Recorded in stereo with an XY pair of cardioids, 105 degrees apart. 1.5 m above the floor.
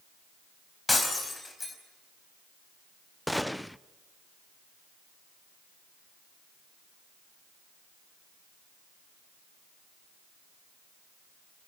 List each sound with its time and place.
0.9 s breaking glass: 20° left, 4.5 m
3.3 s a gunshot: straight ahead, 0.5 m